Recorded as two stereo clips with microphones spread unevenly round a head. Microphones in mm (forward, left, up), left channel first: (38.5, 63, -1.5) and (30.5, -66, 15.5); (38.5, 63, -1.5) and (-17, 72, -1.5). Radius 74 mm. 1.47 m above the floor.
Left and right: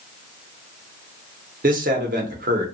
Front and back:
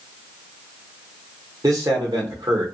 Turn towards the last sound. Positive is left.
turn(degrees=-130)